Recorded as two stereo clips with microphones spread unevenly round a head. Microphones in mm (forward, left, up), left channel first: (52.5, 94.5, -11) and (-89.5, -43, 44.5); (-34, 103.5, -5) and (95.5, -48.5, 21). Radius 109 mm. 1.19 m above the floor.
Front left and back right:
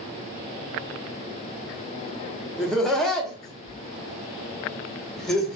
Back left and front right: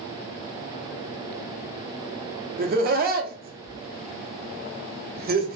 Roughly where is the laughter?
Ahead right.